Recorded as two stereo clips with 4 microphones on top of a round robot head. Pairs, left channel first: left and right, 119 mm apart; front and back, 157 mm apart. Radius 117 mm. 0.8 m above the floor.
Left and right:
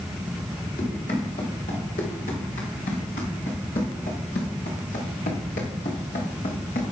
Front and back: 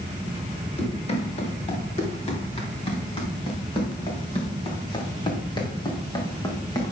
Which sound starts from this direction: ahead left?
Running footsteps, at 0.8 s.